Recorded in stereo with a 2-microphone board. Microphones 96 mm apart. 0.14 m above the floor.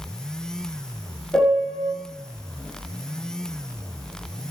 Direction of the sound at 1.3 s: 5° left (ahead or behind).